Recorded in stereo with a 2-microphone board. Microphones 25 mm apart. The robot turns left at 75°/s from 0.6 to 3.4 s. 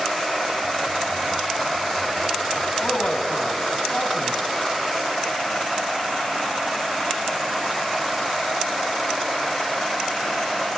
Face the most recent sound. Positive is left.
turn(degrees=70)